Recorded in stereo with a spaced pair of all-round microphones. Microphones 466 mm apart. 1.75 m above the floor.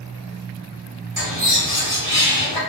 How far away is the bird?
About 1.9 m.